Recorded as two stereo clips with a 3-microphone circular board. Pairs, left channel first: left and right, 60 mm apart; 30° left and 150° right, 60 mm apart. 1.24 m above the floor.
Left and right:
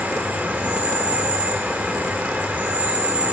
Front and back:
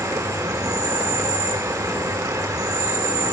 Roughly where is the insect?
Behind right.